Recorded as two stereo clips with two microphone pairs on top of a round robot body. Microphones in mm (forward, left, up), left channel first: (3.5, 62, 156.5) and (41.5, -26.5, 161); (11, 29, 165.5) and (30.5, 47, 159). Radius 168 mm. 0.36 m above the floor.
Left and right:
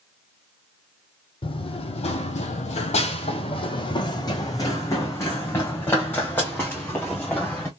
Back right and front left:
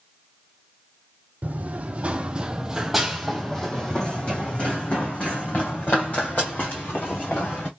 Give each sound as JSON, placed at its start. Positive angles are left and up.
{"t": 1.4, "sound": "running footsteps", "azimuth_deg": 75, "distance_m": 1.0}